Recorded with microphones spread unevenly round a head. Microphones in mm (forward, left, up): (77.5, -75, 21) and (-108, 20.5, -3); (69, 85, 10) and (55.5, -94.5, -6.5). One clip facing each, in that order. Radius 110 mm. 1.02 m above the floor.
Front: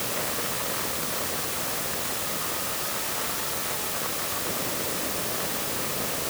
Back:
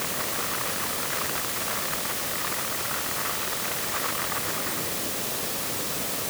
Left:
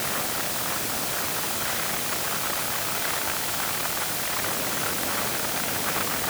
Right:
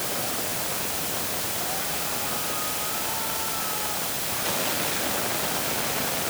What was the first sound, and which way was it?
Only background noise.